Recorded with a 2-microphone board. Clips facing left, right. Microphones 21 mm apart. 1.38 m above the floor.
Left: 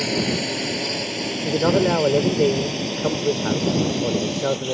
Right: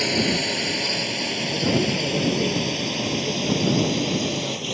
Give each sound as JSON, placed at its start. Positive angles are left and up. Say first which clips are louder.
{"t": 0.0, "sound": "a drone", "louder": "right 1 dB", "side_deg": -10}
{"t": 1.4, "sound": "a man speaking", "louder": "left 5 dB", "side_deg": 60}